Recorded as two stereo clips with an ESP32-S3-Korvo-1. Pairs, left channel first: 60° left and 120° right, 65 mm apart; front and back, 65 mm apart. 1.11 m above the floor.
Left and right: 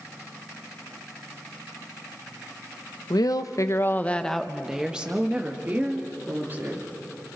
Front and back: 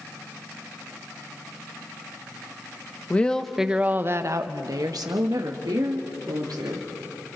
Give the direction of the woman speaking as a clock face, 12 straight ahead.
10 o'clock.